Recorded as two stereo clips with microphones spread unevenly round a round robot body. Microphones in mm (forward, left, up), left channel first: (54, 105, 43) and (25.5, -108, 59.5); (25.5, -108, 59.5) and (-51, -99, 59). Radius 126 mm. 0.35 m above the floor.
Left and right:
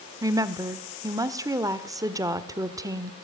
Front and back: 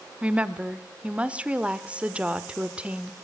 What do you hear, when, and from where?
0.2 s a woman speaking: 155° right, 1.5 m